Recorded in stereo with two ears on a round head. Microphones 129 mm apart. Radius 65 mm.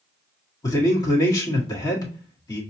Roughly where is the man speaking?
Left.